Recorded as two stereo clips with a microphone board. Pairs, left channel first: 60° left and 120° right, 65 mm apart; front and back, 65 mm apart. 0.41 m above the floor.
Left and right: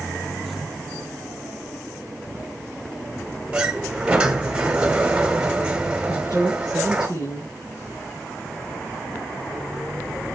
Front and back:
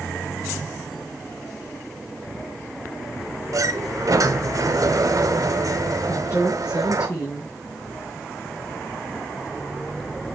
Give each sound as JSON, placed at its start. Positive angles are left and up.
{"t": 3.5, "sound": "a sliding door", "azimuth_deg": 165, "distance_m": 1.6}
{"t": 6.1, "sound": "a woman speaking", "azimuth_deg": 30, "distance_m": 5.5}